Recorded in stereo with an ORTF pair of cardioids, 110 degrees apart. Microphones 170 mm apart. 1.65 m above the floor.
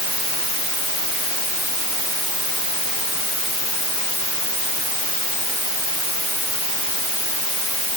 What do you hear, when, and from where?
Only background noise.